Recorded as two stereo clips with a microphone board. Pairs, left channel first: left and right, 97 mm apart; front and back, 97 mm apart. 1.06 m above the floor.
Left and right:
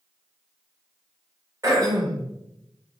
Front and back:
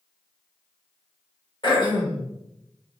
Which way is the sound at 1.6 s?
35° right.